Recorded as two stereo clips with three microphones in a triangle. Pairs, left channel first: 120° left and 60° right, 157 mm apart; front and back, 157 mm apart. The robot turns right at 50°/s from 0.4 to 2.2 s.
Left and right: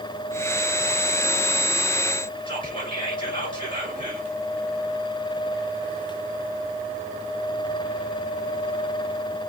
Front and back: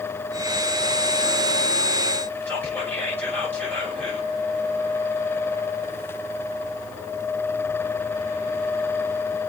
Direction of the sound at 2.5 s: 75° left.